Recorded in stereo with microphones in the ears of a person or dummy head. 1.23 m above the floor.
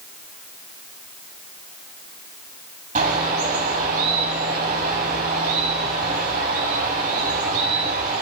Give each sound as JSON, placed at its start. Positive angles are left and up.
{"t": 3.0, "sound": "a bird", "side_deg": -40, "distance_m": 2.5}